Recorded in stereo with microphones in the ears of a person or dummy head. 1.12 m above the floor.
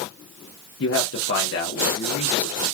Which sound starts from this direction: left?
A man speaking, at 0.8 s.